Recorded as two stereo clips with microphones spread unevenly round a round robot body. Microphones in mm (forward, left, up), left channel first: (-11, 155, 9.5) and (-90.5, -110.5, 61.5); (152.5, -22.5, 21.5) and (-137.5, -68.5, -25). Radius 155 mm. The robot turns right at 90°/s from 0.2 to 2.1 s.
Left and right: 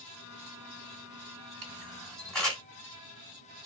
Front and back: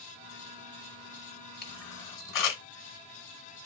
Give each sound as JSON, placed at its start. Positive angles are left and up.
{"t": 1.6, "sound": "a camera shutter", "azimuth_deg": -55, "distance_m": 1.3}